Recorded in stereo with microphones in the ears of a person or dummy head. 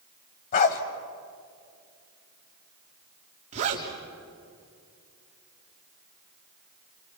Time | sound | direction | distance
0.5 | a dog barking | 45° left (ahead or behind) | 1.7 m
3.5 | a zipper | 35° right (ahead or behind) | 3.5 m